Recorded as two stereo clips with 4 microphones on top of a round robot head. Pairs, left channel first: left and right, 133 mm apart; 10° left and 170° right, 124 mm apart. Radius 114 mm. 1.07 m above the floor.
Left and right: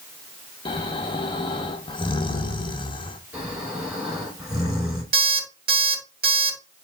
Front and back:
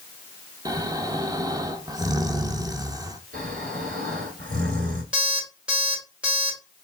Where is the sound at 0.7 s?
135° left, 0.9 m.